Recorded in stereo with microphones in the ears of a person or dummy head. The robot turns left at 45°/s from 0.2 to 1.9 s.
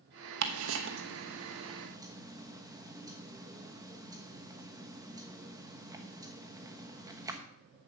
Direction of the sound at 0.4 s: 75° right (ahead or behind).